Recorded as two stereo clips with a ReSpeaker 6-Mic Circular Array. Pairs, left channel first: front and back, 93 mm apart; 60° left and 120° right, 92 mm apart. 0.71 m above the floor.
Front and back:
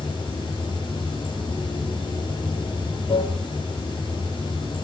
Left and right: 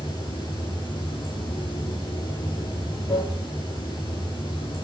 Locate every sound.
0.0 s running water: 30° left, 8 m